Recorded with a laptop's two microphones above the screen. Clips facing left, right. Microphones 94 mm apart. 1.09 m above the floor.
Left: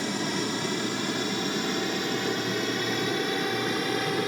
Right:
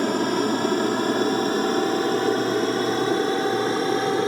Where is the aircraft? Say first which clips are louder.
Right 8 dB; 50° right (ahead or behind); by 4.3 s 30° right (ahead or behind).